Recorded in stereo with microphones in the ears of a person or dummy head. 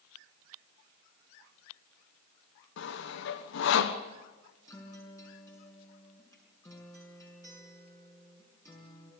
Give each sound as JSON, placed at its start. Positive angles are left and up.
{"t": 2.8, "sound": "sawing", "side_deg": 65, "distance_m": 1.3}
{"t": 4.7, "sound": "a guitar", "side_deg": 15, "distance_m": 6.0}